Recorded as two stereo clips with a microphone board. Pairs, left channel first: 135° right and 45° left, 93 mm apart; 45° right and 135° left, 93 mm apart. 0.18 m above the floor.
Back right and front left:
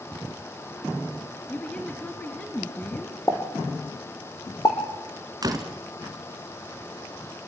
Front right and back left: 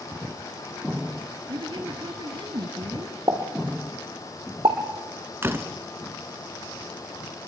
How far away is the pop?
About 4 m.